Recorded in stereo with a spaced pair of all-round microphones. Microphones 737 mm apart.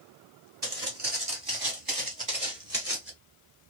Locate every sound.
0.6 s footsteps: 35° right (ahead or behind), 1.7 m; by 3.1 s 15° right (ahead or behind), 1.1 m